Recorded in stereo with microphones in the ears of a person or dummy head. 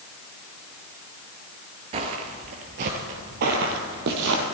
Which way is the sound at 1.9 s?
40° right (ahead or behind).